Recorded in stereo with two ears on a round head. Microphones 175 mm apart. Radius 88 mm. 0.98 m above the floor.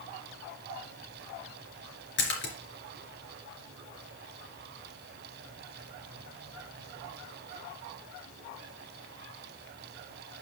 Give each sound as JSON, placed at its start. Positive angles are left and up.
{"t": 2.2, "sound": "a splash", "side_deg": 70, "distance_m": 3.0}